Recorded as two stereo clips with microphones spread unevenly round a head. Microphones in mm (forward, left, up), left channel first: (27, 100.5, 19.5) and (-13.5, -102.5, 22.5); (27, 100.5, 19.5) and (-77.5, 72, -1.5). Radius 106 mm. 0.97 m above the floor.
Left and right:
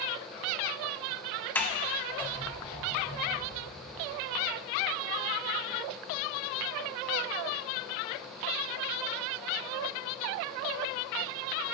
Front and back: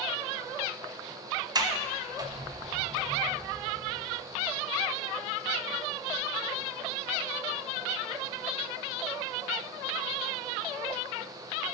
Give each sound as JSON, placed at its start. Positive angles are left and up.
{"t": 1.6, "sound": "a sliding door", "azimuth_deg": 160, "distance_m": 1.4}